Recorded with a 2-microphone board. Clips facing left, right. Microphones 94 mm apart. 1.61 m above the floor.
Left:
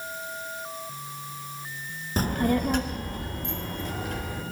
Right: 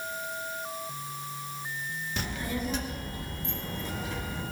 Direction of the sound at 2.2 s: 40° left (ahead or behind).